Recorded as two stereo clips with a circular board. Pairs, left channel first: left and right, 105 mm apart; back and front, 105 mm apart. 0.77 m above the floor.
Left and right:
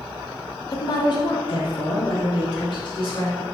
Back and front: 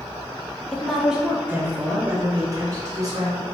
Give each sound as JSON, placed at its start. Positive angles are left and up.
{"t": 0.7, "sound": "a woman speaking", "azimuth_deg": 105, "distance_m": 0.7}